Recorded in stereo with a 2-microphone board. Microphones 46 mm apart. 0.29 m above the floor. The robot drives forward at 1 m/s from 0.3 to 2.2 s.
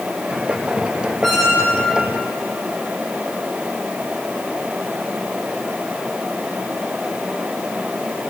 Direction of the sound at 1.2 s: Centre (ahead or behind).